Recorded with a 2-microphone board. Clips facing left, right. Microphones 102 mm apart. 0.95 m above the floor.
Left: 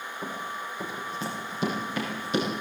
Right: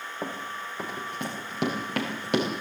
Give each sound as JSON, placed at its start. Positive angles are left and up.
{"t": 0.2, "sound": "running footsteps", "side_deg": -55, "distance_m": 5.0}